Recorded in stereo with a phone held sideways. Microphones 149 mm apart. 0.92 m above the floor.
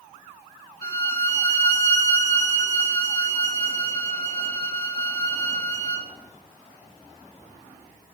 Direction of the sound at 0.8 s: 25° left (ahead or behind).